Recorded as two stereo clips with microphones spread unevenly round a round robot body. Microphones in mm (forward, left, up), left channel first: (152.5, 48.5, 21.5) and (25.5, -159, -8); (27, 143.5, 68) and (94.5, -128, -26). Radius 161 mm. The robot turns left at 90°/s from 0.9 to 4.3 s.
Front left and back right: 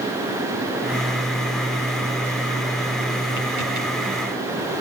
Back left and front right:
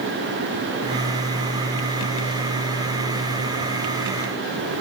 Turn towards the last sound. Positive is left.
No sound to turn to.